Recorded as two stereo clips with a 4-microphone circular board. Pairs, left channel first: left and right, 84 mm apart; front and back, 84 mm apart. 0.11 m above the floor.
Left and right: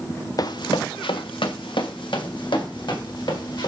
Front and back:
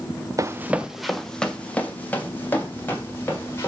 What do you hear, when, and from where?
0.4 s running footsteps: 130° left, 0.6 m; by 3.7 s 65° left, 3 m